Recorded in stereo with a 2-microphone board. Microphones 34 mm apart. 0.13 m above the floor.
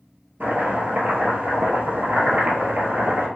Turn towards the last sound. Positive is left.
turn(degrees=-65)  # may be behind; listen again after turning